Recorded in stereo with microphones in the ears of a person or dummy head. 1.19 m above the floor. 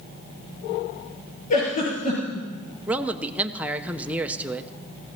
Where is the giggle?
45° left (ahead or behind), 5.5 m.